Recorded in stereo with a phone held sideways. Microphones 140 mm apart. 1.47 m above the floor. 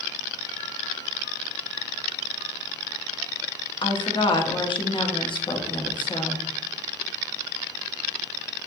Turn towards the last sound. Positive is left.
turn(degrees=35)  # may be behind; listen again after turning